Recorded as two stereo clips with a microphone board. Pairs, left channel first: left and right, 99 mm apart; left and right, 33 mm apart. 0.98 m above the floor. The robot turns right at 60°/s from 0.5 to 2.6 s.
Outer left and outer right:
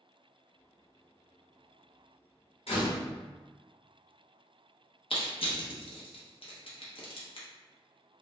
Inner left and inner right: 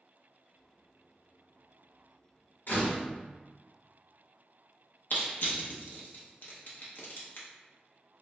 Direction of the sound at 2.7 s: 70° left (ahead or behind).